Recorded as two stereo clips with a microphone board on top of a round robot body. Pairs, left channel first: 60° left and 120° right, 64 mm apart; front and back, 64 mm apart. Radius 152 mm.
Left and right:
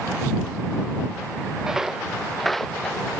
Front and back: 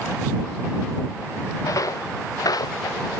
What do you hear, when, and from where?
1.6 s footsteps: 40° right; by 3.1 s 20° right